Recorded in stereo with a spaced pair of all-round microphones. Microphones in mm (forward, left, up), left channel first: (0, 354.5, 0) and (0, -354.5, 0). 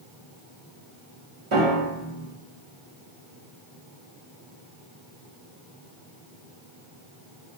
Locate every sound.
1.5 s a piano: 45° right (ahead or behind), 0.8 m